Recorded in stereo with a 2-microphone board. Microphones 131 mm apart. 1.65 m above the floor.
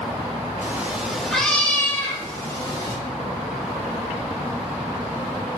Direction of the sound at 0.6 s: 20° right (ahead or behind).